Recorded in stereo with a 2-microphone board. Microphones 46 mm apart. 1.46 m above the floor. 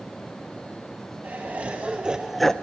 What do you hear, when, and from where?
1.2 s laughter: 35° right (ahead or behind), 1.9 m; by 2.5 s 15° left (ahead or behind), 0.6 m